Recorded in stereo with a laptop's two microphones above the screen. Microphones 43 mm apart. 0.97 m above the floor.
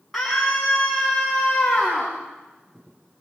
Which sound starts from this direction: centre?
A scream, at 0.1 s.